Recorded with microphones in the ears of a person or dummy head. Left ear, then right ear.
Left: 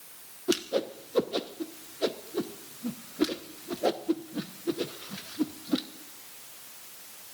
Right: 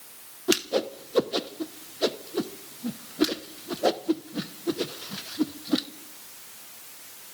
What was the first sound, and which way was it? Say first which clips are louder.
A whoosh: right 3 dB; 10° right (ahead or behind).